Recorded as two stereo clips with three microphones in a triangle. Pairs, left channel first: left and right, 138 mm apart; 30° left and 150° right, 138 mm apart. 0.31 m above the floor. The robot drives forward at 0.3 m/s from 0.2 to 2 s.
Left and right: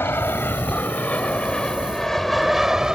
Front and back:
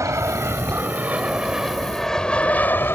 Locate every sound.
0.0 s an aircraft: 155° left; by 3.0 s 15° right